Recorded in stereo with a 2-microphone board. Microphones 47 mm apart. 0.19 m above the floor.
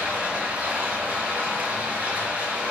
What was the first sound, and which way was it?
Running water, 40° right (ahead or behind).